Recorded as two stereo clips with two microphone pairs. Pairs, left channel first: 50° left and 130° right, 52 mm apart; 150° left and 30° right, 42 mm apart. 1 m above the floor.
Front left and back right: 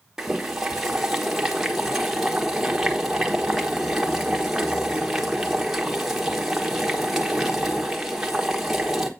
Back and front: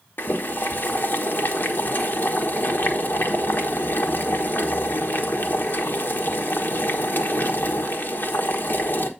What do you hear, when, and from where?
0.2 s boiling: 150° left, 1.3 m